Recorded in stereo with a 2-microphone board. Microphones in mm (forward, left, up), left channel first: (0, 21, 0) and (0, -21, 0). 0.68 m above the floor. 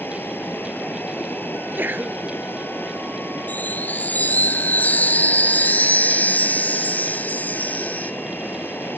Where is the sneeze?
50° right (ahead or behind).